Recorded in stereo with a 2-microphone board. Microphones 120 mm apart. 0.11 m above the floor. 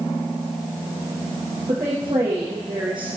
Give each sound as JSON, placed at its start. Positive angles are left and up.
{"t": 1.7, "sound": "a woman speaking", "side_deg": -40, "distance_m": 6.0}